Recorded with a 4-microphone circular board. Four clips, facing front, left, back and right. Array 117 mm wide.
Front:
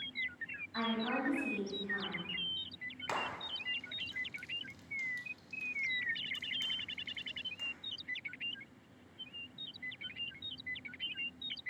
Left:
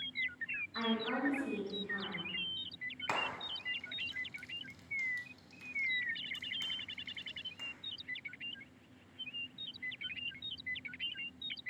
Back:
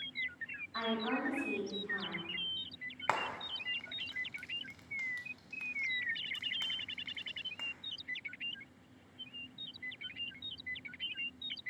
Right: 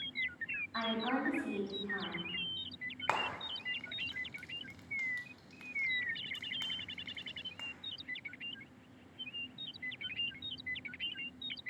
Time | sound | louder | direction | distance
0.7 | a woman speaking | right 1 dB, even | 80° right | 3 m
3.1 | frying | right 3 dB, back 3 dB | 135° right | 1.3 m